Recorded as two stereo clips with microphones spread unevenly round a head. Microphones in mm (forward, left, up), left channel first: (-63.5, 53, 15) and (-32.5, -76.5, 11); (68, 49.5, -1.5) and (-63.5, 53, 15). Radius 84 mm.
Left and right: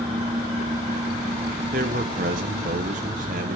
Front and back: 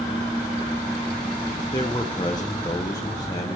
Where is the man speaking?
70° right, 0.8 m.